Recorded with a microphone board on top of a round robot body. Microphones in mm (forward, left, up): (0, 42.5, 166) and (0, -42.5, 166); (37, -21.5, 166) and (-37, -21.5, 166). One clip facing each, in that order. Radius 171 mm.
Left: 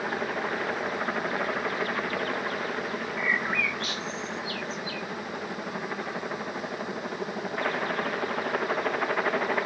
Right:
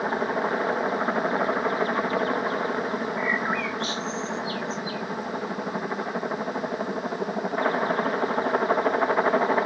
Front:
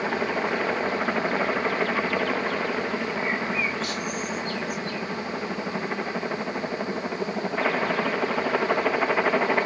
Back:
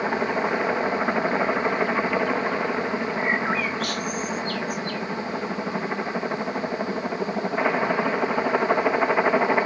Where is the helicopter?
120° right.